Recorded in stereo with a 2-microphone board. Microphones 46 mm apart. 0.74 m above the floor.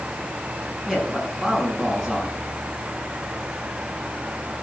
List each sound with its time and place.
0.9 s a man speaking: 5° right (ahead or behind), 7.5 m